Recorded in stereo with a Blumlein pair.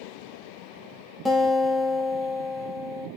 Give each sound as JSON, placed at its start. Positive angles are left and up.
{"t": 1.2, "sound": "a guitar", "azimuth_deg": 0, "distance_m": 1.2}